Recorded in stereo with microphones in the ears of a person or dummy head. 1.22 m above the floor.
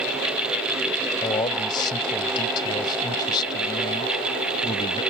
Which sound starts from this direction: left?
A man speaking, at 1.2 s.